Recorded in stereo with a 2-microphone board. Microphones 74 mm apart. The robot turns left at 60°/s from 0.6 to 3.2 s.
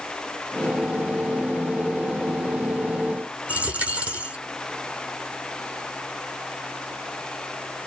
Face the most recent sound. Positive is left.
turn(degrees=-20)  # may be behind; listen again after turning